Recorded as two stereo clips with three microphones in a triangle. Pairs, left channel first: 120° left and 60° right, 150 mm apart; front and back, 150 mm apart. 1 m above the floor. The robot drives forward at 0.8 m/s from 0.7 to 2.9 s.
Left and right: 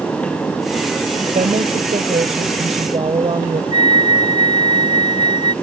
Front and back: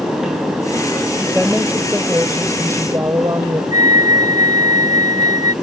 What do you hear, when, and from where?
1.3 s a woman speaking: 95° right; by 3.6 s 110° right
3.7 s a flute: 115° right